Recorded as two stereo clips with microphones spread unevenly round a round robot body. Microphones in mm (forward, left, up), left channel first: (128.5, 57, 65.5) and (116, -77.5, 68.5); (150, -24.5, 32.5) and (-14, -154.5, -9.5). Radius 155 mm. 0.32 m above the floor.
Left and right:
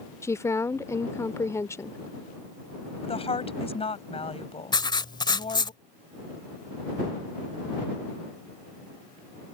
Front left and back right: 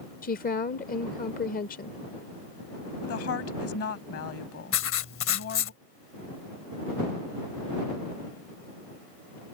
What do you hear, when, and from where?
0.2 s a woman speaking: 40° left
3.0 s a woman speaking: 45° left
4.7 s writing: 30° left